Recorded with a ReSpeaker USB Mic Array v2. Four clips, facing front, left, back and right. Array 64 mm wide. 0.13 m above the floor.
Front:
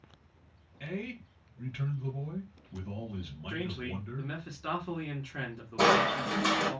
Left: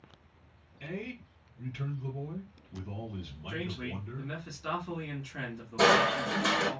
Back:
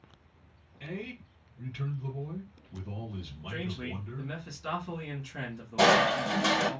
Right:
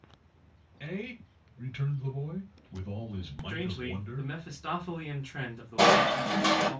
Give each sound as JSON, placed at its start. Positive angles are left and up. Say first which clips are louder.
{"t": 0.8, "sound": "a man speaking", "louder": "right 1 dB, front 1 dB", "azimuth_deg": -65, "distance_m": 2.0}
{"t": 3.5, "sound": "a man speaking", "louder": "right 2 dB, even", "azimuth_deg": -30, "distance_m": 1.4}
{"t": 5.8, "sound": "crushing", "louder": "right 2 dB, back 2 dB", "azimuth_deg": -125, "distance_m": 1.5}